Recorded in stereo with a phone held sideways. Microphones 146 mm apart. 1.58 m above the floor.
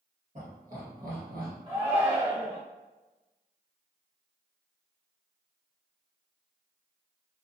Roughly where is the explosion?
I don't hear an explosion.